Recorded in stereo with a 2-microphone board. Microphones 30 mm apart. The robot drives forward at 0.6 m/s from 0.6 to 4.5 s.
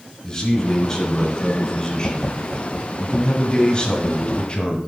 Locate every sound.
0.2 s a man speaking: 20° left (ahead or behind), 3 m; by 4.8 s 35° left (ahead or behind), 1.9 m